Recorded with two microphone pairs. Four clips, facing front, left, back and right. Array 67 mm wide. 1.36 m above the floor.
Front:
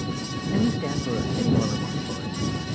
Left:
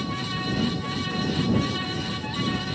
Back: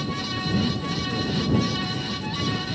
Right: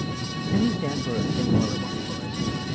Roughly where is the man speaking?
Ahead right.